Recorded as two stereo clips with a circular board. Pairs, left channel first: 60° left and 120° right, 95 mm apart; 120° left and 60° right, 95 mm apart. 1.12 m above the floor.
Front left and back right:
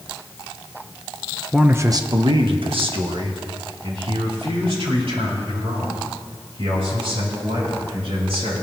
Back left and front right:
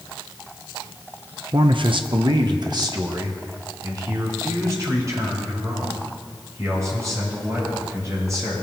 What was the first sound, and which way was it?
A man speaking, 30° right.